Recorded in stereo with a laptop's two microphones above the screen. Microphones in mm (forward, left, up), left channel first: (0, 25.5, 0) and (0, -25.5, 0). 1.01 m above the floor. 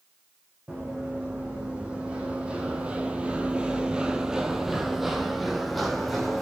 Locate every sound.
0.7 s running footsteps: 20° right (ahead or behind), 2.5 m; by 6.4 s 5° left (ahead or behind), 2 m